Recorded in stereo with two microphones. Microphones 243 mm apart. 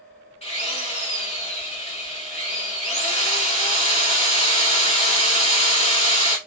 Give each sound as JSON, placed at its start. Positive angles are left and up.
{"t": 0.4, "sound": "a drill", "side_deg": 25, "distance_m": 1.8}